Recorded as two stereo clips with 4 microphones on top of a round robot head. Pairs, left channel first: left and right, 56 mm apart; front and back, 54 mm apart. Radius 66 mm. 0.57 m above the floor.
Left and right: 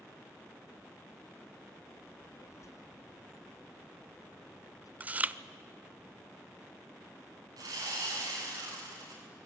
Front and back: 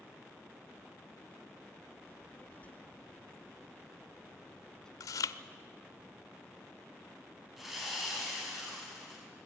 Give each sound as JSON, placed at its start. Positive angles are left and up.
{"t": 2.1, "sound": "a child speaking", "azimuth_deg": 50, "distance_m": 1.9}
{"t": 5.0, "sound": "chewing", "azimuth_deg": -25, "distance_m": 0.5}
{"t": 7.6, "sound": "sawing", "azimuth_deg": -90, "distance_m": 6.5}